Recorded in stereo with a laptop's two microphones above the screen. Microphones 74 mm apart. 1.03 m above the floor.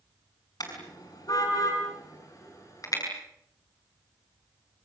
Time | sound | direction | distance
0.6 | a car horn | 60° left (ahead or behind) | 6 m